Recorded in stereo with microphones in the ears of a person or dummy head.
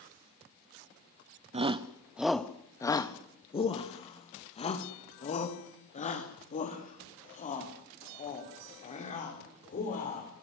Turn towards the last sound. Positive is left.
turn(degrees=40)  # may be behind; listen again after turning